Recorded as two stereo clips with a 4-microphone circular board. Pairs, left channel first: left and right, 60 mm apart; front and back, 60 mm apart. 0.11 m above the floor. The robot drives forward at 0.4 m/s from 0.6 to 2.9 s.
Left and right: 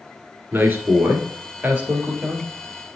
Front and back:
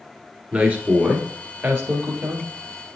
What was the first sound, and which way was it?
A man speaking, 125° right.